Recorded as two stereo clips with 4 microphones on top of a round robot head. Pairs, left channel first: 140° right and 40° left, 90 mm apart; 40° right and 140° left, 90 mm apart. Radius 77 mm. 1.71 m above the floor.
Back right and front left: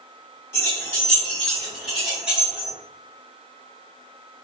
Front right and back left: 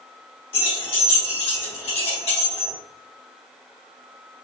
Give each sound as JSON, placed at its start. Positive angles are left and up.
{"t": 0.5, "sound": "keys jangling", "azimuth_deg": -75, "distance_m": 2.0}